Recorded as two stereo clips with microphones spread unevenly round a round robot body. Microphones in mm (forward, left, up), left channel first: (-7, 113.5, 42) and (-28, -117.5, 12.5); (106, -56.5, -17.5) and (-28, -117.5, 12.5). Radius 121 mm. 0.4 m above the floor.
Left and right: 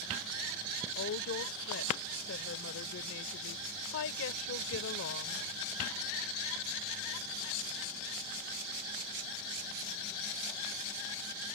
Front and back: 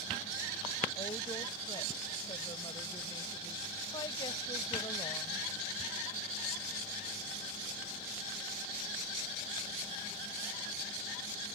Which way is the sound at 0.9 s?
80° left.